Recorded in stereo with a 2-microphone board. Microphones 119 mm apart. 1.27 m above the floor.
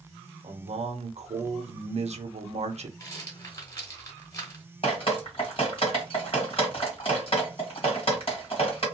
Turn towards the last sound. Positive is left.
turn(degrees=50)  # may be behind; listen again after turning